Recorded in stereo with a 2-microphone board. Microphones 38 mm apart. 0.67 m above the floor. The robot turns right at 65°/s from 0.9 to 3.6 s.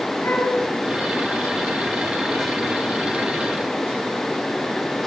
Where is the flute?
85° left, 4 m.